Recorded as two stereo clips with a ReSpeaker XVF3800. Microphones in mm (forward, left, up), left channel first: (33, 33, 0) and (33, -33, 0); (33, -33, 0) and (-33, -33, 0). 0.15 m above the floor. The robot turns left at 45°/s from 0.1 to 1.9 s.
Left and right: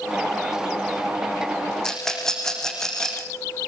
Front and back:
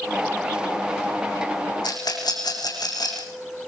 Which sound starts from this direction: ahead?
A rattle, at 1.8 s.